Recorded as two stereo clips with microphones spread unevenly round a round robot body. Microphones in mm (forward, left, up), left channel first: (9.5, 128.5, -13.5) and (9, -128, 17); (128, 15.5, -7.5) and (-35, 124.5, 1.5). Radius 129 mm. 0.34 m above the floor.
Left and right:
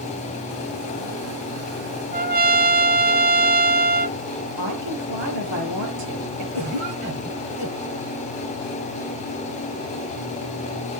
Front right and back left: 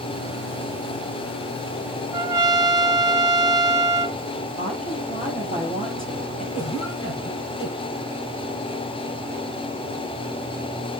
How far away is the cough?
About 7.5 m.